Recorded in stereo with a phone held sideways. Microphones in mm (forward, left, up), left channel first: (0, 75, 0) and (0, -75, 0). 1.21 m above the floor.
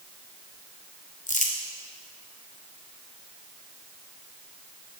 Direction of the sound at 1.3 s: 60° left (ahead or behind).